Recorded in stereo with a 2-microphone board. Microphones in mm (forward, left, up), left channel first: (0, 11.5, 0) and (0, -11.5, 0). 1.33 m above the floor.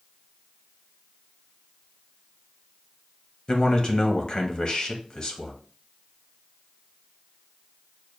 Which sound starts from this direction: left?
A man speaking, at 3.5 s.